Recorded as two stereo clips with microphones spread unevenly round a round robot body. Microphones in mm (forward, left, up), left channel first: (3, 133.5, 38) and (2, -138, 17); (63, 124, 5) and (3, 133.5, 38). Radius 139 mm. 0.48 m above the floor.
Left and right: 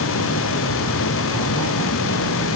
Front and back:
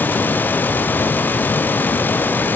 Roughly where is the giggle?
No giggle in this recording.